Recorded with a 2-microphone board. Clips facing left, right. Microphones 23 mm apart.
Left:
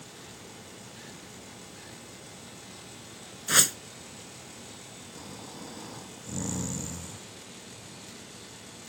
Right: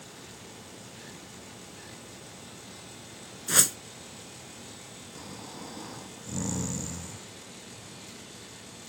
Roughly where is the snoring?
Centre.